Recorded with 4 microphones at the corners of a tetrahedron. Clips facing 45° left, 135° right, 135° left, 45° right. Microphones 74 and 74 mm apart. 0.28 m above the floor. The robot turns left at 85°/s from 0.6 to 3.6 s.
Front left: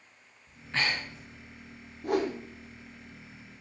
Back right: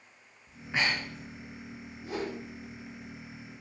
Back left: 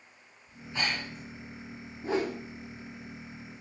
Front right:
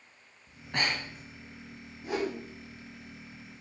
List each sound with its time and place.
0.5 s breathing: 45° right, 3.5 m; by 1.2 s 100° right, 3.5 m
2.0 s a whoosh: 80° left, 2.5 m; by 2.4 s 50° left, 2.5 m